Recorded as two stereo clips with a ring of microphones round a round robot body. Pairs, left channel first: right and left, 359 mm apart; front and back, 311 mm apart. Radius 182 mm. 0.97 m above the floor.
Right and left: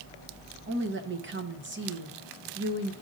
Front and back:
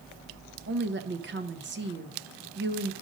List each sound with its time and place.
0.7 s a woman speaking: 140° left, 0.8 m